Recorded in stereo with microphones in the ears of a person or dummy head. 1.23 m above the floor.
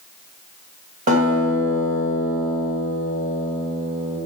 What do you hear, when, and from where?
1.1 s a guitar: 45° right (ahead or behind), 2 m